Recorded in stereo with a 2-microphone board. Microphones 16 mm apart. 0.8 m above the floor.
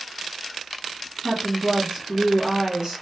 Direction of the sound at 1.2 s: 35° right (ahead or behind).